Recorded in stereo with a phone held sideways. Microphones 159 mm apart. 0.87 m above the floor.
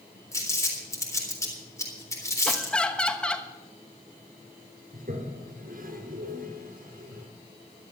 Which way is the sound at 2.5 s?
5° left (ahead or behind).